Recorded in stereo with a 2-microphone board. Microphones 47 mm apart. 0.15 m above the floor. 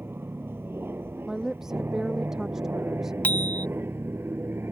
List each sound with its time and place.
0.0 s an aircraft: 50° right (ahead or behind); by 4.7 s 55° right (ahead or behind)
1.3 s a woman speaking: 10° right (ahead or behind)
3.2 s a bicycle bell: 35° left (ahead or behind)